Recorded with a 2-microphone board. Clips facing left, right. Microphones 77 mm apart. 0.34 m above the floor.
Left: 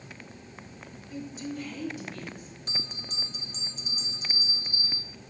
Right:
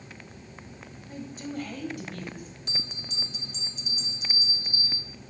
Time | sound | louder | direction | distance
1.1 | a woman speaking | even | 45° right (ahead or behind) | 1.4 m
2.7 | a bell | even | 40° left (ahead or behind) | 0.9 m